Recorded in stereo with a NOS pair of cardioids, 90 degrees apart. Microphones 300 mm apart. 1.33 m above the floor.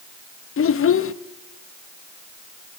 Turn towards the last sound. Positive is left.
turn(degrees=45)